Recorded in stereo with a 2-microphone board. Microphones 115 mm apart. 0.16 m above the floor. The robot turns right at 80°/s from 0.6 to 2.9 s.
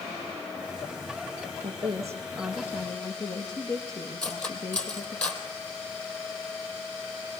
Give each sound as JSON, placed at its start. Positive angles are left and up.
{"t": 1.6, "sound": "a woman speaking", "azimuth_deg": -60, "distance_m": 4.5}
{"t": 4.2, "sound": "cutlery clinking", "side_deg": 10, "distance_m": 3.5}